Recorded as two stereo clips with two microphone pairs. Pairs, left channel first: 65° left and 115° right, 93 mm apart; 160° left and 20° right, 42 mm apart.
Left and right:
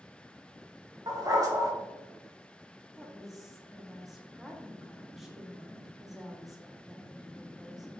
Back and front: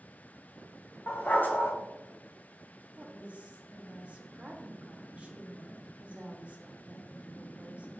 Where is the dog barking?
165° right, 0.8 m.